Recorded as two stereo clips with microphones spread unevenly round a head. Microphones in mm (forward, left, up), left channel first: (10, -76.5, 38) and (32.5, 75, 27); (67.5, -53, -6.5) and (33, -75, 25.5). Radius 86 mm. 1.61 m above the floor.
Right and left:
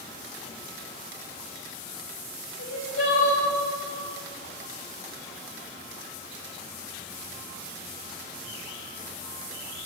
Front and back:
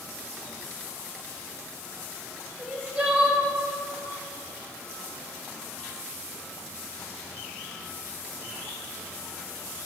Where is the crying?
120° right, 2.5 m.